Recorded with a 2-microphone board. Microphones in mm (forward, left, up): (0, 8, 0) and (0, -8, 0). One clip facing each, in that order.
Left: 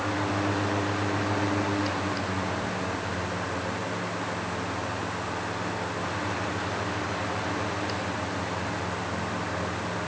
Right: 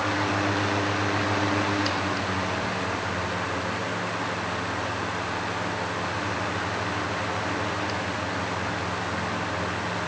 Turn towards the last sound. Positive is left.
No sound to turn to.